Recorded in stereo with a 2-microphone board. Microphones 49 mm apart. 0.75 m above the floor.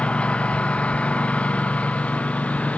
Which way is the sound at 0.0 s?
25° left (ahead or behind).